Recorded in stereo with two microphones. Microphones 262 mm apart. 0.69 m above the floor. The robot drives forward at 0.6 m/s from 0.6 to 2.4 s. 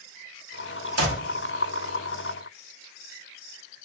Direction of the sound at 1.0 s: 65° right (ahead or behind).